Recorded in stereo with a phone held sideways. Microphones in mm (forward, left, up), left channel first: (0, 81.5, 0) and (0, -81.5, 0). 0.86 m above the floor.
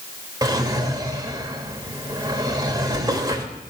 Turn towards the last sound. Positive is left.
turn(degrees=-25)  # may be behind; listen again after turning